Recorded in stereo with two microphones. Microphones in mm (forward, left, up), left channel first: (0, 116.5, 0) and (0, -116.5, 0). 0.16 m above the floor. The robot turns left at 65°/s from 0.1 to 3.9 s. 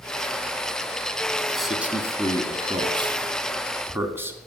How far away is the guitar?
I don't hear a guitar.